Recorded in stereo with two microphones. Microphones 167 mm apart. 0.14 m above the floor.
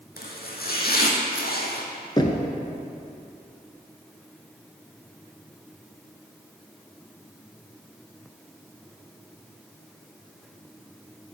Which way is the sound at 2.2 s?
25° left (ahead or behind).